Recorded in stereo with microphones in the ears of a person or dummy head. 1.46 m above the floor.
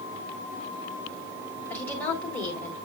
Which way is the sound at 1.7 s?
10° left (ahead or behind).